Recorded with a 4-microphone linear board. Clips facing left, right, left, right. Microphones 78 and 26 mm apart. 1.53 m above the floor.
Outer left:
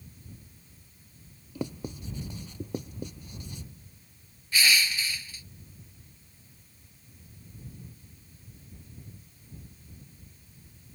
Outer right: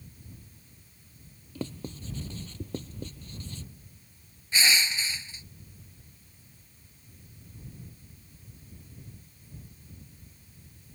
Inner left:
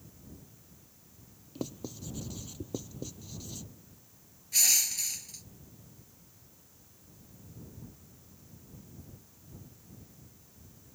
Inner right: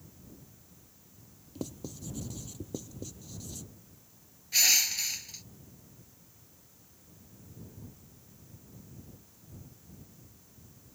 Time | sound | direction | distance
1.6 | writing | 15° left (ahead or behind) | ?
4.5 | crushing | 25° right (ahead or behind) | ?